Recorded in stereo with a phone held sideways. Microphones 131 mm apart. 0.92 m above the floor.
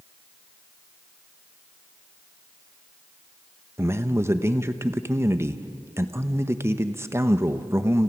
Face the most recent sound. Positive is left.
turn(degrees=-20)  # may be behind; listen again after turning